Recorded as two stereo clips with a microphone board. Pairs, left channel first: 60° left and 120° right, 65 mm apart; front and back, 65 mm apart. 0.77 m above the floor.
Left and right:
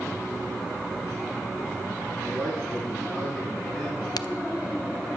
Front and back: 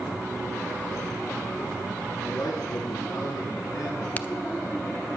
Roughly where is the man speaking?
Ahead right.